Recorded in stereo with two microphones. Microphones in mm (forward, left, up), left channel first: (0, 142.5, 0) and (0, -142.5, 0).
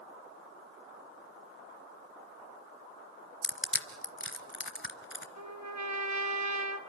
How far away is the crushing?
About 1.1 m.